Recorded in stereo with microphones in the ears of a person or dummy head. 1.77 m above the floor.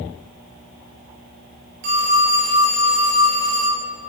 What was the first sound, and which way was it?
A phone ringing, 50° right (ahead or behind).